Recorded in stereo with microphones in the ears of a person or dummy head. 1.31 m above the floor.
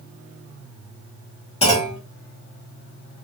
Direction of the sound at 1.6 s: 35° left (ahead or behind).